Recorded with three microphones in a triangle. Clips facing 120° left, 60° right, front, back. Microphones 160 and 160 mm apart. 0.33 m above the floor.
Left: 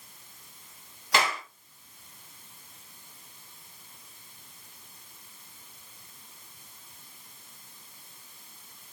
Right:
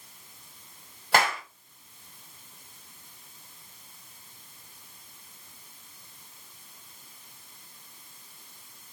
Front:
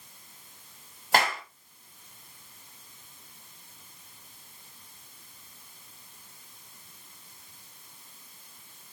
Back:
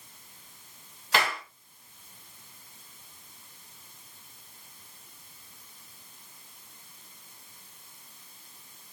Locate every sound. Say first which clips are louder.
1.1 s a clap: right 3 dB, front 3 dB; 35° right, 1.9 m